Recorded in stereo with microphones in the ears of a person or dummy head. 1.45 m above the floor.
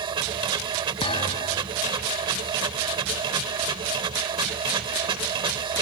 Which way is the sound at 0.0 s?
25° right (ahead or behind).